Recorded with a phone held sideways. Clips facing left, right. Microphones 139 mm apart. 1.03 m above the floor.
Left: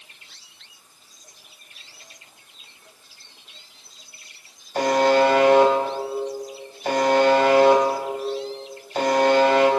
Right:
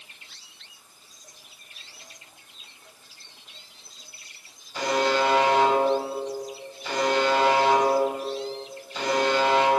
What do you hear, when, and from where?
4.8 s a buzzer: 55° left (ahead or behind), 3.5 m